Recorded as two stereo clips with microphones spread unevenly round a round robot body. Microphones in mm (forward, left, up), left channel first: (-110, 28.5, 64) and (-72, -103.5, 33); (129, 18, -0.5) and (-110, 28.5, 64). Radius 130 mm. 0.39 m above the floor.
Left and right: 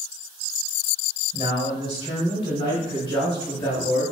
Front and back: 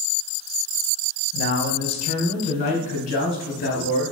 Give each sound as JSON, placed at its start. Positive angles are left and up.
{"t": 1.3, "sound": "a man speaking", "azimuth_deg": 50, "distance_m": 2.5}